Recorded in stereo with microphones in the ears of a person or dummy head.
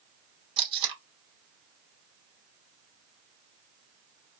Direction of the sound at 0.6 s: 35° right (ahead or behind).